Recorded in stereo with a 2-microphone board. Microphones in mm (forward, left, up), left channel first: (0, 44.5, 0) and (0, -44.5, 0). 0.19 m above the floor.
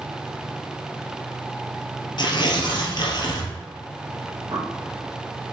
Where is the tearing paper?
55° left (ahead or behind), 1.6 m.